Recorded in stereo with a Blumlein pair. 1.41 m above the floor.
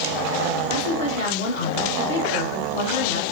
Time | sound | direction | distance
0.7 | a woman speaking | 65° left | 1.0 m